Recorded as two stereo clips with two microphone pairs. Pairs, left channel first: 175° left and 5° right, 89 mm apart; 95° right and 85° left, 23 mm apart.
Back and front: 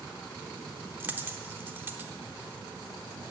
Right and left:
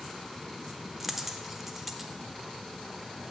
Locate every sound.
1.0 s a dropped coin: 15° left, 0.9 m